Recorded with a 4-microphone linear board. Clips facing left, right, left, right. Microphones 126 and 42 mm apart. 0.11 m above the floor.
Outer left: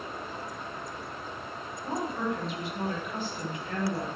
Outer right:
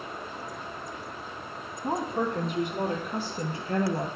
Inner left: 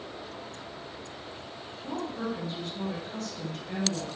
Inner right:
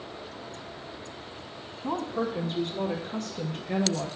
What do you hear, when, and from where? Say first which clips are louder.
1.8 s a woman speaking: outer right 3 dB, inner right 4 dB; 50° right (ahead or behind), 3.5 m; by 4.1 s 25° right (ahead or behind), 3 m